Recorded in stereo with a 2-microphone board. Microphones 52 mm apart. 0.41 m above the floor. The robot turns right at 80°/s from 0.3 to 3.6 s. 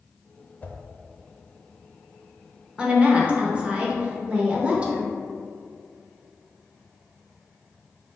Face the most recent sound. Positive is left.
turn(degrees=-20)  # may be behind; listen again after turning